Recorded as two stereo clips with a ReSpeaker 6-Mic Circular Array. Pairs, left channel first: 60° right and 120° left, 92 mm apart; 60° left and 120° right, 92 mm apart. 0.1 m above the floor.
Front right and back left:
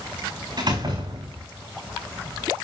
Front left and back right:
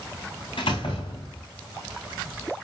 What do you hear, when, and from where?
0.6 s a door slam: 80° left, 6.5 m